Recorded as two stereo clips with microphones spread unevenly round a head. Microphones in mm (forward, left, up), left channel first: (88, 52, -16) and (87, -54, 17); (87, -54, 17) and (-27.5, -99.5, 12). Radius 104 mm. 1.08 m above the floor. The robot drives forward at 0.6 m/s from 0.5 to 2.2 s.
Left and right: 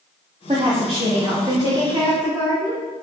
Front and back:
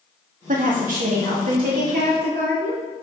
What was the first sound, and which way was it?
A woman speaking, 155° right.